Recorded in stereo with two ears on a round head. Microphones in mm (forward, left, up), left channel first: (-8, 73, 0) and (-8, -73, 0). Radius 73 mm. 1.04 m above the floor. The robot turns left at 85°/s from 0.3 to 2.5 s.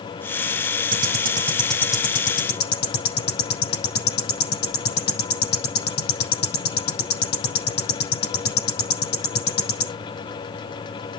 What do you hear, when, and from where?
0.9 s ticking: 65° right (ahead or behind), 6 m; by 9.9 s 70° left (ahead or behind), 6 m